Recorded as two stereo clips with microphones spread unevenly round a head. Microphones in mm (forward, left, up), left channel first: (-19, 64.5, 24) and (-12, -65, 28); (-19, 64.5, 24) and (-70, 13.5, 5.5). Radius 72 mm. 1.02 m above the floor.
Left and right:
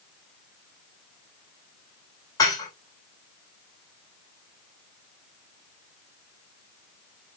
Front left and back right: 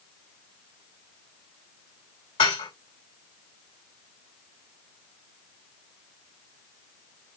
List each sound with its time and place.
2.4 s dishes clattering: 30° left, 3 m